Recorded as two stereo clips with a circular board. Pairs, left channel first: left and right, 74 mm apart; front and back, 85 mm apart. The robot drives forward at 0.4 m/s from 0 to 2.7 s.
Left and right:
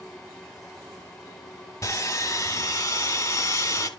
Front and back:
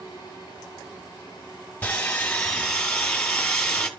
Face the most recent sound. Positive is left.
turn(degrees=80)